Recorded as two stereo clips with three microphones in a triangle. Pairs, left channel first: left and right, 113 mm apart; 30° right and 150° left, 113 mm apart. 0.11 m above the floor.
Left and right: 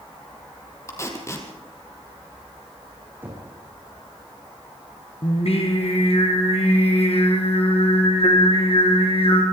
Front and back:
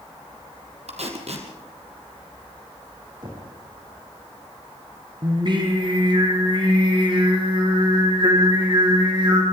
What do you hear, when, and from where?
0.9 s tape being pulled: 150° left, 3 m
3.2 s knocking: 160° right, 6.5 m
5.2 s singing: 110° left, 3.5 m